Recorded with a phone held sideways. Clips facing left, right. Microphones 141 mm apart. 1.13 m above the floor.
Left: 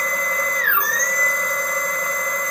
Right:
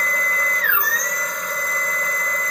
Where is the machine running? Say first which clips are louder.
Left 1 dB; 45° left (ahead or behind), 1.0 m.